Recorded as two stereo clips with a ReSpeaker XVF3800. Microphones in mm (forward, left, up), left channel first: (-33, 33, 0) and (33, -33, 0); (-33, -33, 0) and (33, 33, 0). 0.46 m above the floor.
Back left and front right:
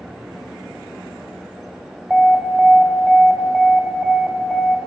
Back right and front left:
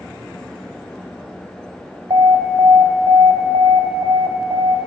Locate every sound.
2.1 s an alarm: 50° left, 1.5 m